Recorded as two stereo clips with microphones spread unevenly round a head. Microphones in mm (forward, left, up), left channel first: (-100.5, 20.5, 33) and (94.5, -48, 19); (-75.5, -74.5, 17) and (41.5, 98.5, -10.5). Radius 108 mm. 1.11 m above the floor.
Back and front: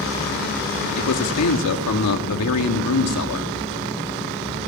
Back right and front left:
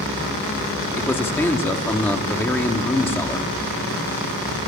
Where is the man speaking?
155° left, 2 m.